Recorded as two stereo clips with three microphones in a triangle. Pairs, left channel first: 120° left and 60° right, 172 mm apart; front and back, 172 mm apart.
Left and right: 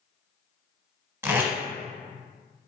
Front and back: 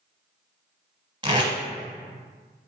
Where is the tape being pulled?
130° right, 0.7 m.